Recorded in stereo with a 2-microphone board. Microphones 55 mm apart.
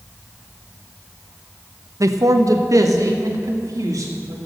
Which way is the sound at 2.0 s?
80° right.